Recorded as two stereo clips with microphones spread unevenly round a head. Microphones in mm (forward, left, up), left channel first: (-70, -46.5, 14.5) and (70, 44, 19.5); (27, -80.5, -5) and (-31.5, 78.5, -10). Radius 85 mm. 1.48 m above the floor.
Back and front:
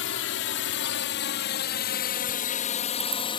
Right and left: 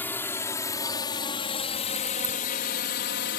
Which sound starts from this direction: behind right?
A drone, at 0.0 s.